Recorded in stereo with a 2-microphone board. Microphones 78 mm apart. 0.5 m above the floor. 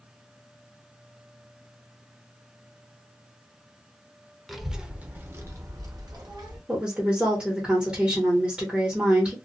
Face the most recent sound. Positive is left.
turn(degrees=-15)  # may be behind; listen again after turning